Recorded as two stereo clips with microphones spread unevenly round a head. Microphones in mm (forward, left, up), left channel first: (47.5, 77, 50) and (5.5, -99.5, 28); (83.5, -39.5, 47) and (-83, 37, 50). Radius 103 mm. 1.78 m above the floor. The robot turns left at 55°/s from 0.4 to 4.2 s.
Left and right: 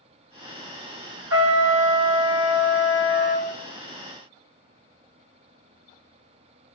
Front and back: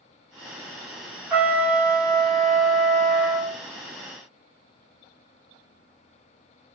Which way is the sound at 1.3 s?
125° right.